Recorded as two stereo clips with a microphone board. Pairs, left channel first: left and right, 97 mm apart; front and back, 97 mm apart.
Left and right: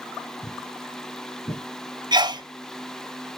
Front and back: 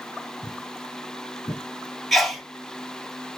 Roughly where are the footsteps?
Ahead left.